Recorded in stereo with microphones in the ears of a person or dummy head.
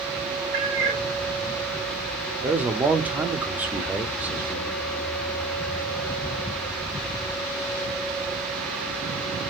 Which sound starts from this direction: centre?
A man speaking, at 2.4 s.